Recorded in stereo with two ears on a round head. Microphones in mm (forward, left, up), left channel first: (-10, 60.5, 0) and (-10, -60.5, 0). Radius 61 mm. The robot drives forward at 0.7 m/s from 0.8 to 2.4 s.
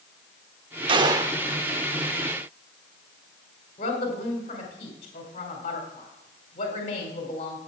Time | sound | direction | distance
0.9 | a gunshot | 40° right (ahead or behind) | 0.7 m
3.8 | a woman speaking | 50° left (ahead or behind) | 2.5 m